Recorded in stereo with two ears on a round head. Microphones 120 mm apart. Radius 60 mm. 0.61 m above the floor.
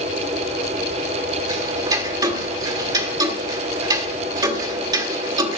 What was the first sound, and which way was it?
Ticking, 30° right (ahead or behind).